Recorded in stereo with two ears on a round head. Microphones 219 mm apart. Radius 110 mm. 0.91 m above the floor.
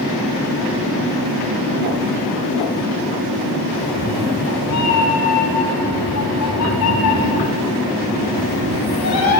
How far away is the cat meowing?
About 2 m.